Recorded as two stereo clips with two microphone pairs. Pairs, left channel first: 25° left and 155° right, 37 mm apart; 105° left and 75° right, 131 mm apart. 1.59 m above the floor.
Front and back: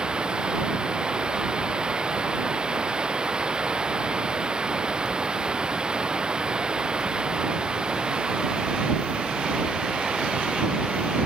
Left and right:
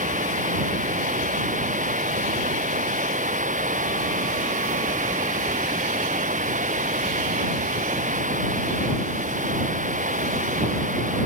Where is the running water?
90° right.